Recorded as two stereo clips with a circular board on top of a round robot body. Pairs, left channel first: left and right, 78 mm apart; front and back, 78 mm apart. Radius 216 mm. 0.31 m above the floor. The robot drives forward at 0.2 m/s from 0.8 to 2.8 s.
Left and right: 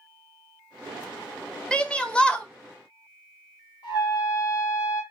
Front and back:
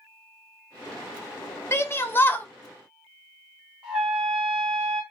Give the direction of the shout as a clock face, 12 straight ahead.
11 o'clock.